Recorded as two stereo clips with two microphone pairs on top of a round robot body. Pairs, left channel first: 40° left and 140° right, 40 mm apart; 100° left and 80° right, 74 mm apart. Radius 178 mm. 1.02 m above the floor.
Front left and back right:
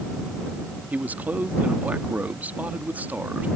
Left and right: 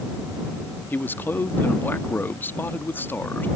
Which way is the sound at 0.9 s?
165° left.